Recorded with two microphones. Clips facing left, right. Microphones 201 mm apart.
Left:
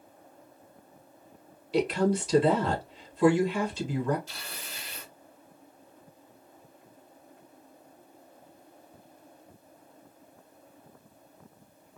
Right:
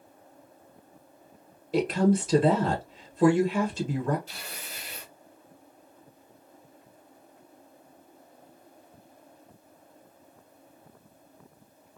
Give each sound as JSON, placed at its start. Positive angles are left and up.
{"t": 1.7, "sound": "a woman speaking", "side_deg": -50, "distance_m": 1.9}
{"t": 4.3, "sound": "tearing paper", "side_deg": -60, "distance_m": 2.5}